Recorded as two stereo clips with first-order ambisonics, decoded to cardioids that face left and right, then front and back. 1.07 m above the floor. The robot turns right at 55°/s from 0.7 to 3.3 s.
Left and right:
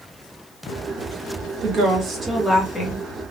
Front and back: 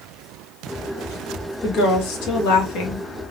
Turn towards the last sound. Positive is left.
turn(degrees=40)